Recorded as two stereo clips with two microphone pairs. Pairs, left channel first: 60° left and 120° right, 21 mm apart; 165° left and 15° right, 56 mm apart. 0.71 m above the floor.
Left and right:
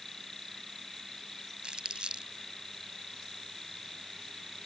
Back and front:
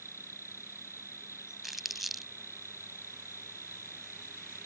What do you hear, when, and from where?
0.0 s an insect: 135° left
1.6 s crumpling: 105° right